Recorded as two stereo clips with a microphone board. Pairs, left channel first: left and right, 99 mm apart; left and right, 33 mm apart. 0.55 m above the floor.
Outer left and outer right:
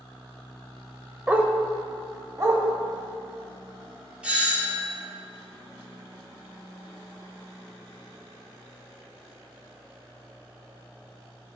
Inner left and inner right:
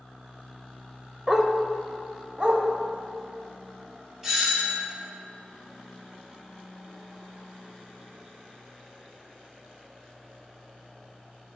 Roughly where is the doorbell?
Centre.